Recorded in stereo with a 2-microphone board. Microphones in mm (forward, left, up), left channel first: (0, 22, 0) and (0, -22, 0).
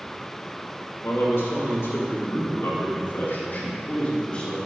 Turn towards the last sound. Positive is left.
turn(degrees=20)  # may be behind; listen again after turning